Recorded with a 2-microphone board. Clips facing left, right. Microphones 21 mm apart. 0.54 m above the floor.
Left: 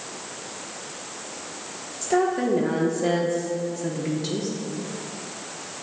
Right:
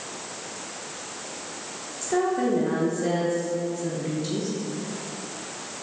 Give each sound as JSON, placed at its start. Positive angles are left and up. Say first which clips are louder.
{"t": 2.0, "sound": "a woman speaking", "louder": "left 2 dB", "side_deg": 25, "distance_m": 0.7}